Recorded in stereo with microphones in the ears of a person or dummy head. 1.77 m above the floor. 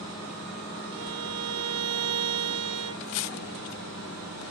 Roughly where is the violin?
Right.